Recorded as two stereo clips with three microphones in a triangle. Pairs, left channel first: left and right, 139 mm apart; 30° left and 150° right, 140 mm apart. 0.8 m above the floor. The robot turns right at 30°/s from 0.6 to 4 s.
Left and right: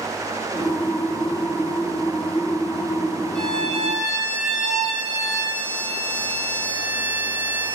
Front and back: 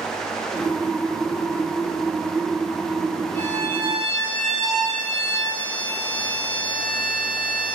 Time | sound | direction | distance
3.4 | a violin | 115° right | 3 m